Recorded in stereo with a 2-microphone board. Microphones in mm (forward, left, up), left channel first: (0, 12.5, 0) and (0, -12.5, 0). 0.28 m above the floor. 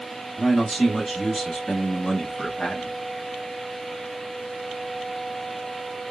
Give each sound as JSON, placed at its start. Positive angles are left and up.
{"t": 0.4, "sound": "a man speaking", "side_deg": 10, "distance_m": 2.0}